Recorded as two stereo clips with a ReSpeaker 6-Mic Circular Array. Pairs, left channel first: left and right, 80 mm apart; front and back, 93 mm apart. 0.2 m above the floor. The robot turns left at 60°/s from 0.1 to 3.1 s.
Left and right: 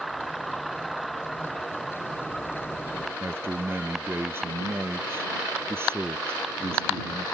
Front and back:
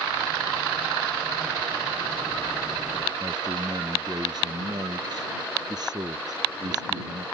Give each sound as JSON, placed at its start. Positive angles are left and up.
{"t": 3.2, "sound": "a man speaking", "azimuth_deg": -145}